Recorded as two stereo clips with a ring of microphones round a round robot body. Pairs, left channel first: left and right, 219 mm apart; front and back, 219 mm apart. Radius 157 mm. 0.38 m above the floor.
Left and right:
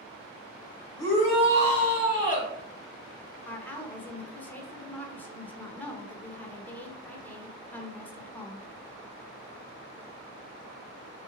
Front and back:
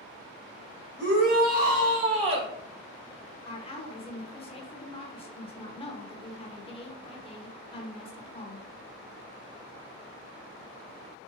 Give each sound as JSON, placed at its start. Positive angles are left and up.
{"t": 1.0, "sound": "a shout", "azimuth_deg": 165, "distance_m": 2.0}
{"t": 3.5, "sound": "a woman speaking", "azimuth_deg": 20, "distance_m": 0.9}